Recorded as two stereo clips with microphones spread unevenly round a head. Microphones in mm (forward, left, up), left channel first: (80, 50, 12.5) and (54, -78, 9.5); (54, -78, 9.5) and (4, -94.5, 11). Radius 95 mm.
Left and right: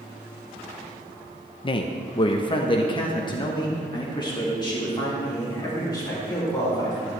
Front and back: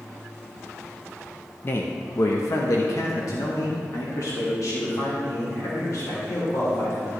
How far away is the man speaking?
About 0.6 m.